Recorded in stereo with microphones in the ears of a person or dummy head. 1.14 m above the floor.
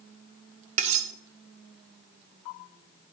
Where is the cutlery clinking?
35° right (ahead or behind), 0.6 m.